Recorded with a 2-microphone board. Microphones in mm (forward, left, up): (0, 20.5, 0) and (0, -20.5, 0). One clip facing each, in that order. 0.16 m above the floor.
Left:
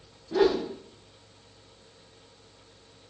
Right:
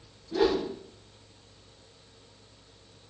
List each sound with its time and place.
0.3 s a whoosh: 75° left (ahead or behind), 5.5 m